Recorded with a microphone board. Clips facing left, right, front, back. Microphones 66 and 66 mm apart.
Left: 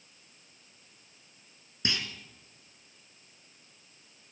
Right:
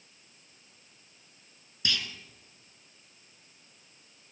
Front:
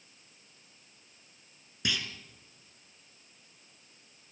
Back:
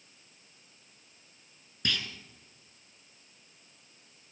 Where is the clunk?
70° left, 1.0 m.